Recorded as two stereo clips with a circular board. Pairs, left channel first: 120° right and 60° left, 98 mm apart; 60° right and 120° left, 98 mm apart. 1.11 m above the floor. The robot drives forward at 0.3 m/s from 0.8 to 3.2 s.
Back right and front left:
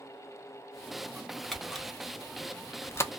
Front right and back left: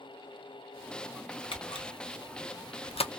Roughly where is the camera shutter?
Ahead right.